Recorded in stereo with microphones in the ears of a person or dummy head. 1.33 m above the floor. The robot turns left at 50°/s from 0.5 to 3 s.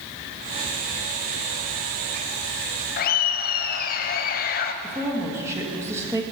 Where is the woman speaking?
20° right (ahead or behind), 1.3 m.